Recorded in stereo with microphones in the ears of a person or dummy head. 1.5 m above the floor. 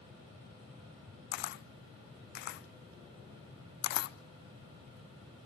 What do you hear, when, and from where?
1.3 s a camera shutter: 55° left (ahead or behind), 0.5 m